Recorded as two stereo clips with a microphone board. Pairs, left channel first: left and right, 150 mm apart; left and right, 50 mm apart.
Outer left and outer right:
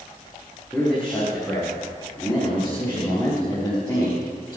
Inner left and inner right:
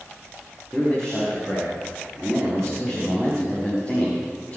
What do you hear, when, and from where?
0.7 s a man speaking: 5° left (ahead or behind), 5.5 m; by 4.6 s 20° left (ahead or behind), 7.5 m